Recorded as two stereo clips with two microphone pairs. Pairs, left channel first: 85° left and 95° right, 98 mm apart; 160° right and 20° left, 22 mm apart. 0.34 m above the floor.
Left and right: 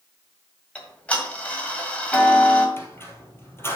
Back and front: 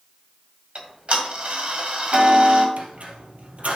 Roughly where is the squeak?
Ahead left.